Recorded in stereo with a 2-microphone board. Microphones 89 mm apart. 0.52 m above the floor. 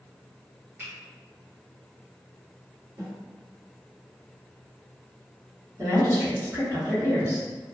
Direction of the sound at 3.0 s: 45° right (ahead or behind).